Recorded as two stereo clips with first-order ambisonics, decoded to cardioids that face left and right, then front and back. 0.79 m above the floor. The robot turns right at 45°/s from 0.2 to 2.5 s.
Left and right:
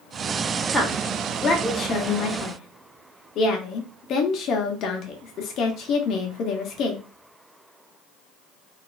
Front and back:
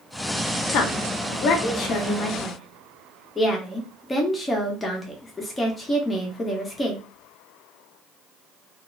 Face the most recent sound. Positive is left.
turn(degrees=70)